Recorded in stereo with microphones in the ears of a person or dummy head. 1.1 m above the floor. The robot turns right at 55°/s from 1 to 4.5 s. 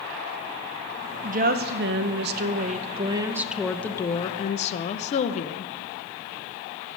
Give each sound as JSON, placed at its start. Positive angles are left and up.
{"t": 1.2, "sound": "a woman speaking", "azimuth_deg": -130, "distance_m": 0.5}